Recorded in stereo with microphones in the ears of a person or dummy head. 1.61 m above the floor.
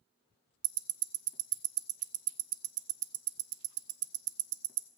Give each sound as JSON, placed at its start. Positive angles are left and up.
{"t": 0.6, "sound": "ticking", "side_deg": -50, "distance_m": 0.5}